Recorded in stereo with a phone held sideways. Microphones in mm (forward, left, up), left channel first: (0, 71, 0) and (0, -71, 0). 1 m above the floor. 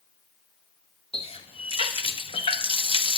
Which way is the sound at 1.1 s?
40° left (ahead or behind).